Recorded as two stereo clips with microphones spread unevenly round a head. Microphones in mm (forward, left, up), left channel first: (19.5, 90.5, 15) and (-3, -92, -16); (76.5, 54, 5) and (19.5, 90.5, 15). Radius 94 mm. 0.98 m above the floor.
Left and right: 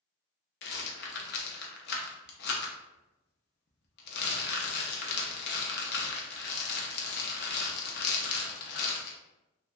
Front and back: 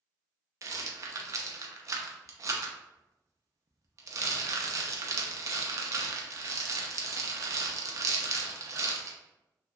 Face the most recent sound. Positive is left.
turn(degrees=110)